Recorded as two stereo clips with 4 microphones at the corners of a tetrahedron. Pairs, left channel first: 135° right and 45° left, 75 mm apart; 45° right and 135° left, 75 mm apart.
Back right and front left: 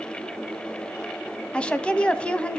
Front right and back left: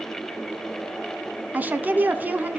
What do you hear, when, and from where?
1.5 s a woman speaking: 165° left, 1.1 m